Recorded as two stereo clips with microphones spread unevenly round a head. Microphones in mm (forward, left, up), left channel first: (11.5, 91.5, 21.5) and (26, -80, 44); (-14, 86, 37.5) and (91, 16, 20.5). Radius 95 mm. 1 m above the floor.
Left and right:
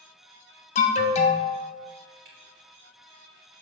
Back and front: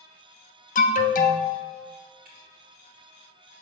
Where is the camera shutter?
60° right, 3 m.